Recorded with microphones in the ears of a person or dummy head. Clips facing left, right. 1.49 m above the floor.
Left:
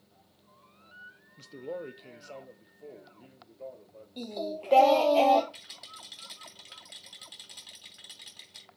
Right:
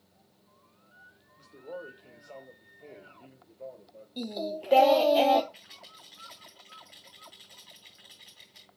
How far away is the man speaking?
About 0.9 m.